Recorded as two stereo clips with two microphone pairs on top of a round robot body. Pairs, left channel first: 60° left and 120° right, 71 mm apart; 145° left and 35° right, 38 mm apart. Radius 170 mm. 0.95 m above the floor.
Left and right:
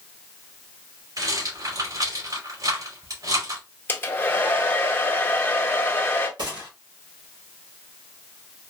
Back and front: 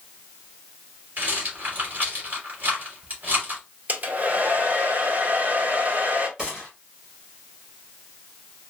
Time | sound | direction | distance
1.2 | a rattle | 85° right | 2.5 m
3.9 | a hair dryer | 10° left | 1.4 m
6.4 | a gunshot | 105° right | 2.0 m